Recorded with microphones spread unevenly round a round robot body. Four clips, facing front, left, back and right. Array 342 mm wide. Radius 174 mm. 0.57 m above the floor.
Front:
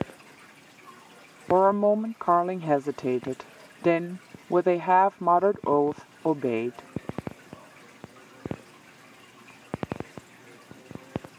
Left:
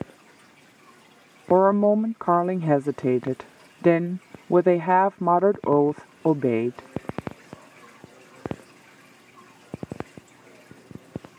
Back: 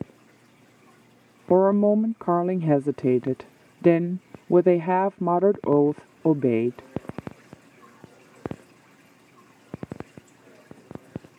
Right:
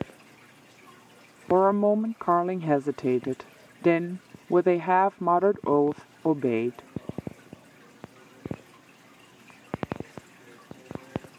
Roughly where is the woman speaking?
Behind.